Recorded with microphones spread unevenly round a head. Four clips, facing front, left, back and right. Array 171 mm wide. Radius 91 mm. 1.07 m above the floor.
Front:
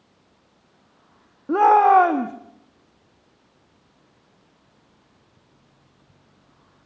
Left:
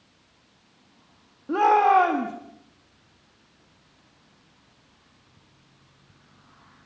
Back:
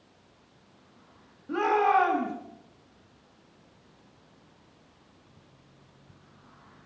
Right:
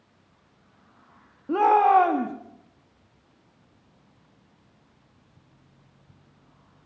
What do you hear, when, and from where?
1.5 s a shout: straight ahead, 1.7 m